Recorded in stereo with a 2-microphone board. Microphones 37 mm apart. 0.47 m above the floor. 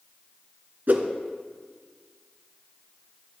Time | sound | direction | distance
0.9 | a whoosh | 65° right (ahead or behind) | 1.1 m